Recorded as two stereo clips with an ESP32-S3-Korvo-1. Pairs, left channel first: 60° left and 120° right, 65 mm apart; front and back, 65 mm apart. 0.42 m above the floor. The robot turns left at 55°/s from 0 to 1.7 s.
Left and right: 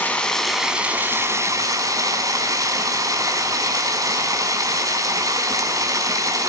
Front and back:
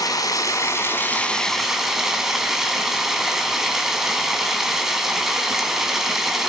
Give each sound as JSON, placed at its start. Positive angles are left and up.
{"t": 0.0, "sound": "running water", "azimuth_deg": 0, "distance_m": 3.5}